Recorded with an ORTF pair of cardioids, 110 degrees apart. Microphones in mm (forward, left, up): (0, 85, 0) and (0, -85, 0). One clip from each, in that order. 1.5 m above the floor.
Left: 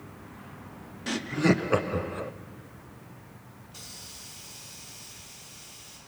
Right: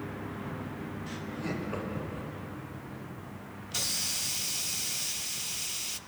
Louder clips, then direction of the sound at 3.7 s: Right 13 dB; 65° right.